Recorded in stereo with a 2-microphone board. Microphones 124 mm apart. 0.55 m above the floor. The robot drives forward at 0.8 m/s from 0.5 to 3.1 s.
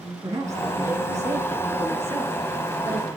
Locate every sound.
0.2 s a woman speaking: 25° right (ahead or behind), 6 m; by 3.1 s 20° right (ahead or behind), 8 m